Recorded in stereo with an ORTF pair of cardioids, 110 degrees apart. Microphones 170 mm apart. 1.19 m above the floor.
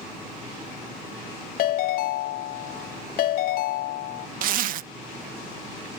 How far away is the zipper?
About 0.5 m.